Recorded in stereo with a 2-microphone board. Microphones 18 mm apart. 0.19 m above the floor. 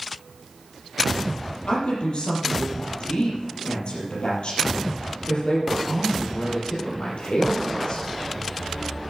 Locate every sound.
1.7 s a woman speaking: 65° left (ahead or behind), 5.5 m